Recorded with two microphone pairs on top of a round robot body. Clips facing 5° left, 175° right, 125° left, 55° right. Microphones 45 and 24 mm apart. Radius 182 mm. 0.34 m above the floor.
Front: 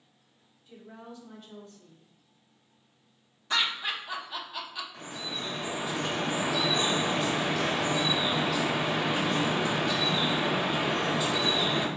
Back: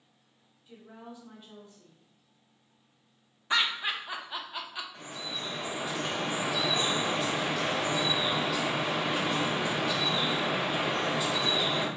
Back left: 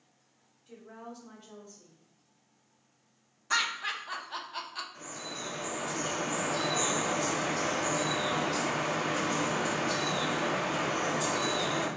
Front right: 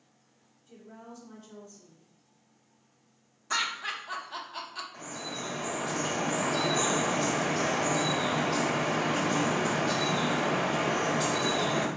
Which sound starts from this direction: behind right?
Laughter, at 3.5 s.